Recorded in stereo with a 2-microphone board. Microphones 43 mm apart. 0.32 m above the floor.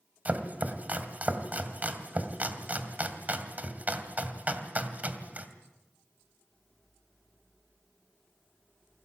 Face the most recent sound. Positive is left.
turn(degrees=-35)  # may be behind; listen again after turning